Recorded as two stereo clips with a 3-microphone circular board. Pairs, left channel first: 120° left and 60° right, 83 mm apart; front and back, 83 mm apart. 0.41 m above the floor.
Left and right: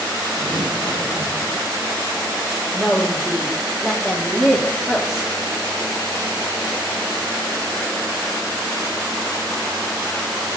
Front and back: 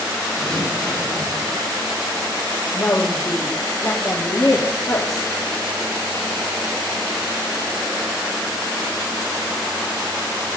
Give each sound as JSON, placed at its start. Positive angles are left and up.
{"t": 0.4, "sound": "tearing paper", "azimuth_deg": -90, "distance_m": 6.5}
{"t": 2.7, "sound": "a woman speaking", "azimuth_deg": 20, "distance_m": 2.0}